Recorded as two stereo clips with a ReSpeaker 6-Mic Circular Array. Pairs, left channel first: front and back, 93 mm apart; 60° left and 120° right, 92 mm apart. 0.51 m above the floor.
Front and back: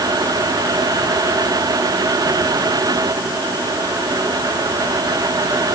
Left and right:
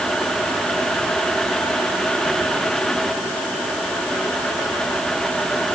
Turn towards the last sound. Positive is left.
No sound to turn to.